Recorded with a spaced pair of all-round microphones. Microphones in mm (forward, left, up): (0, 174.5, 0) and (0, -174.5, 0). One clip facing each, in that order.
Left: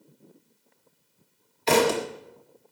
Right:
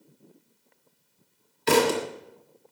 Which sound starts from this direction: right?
A thud, at 1.7 s.